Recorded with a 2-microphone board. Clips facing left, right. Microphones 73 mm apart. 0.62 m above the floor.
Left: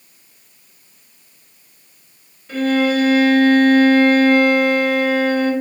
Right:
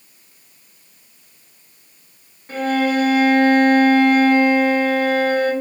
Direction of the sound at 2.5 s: 45° right (ahead or behind).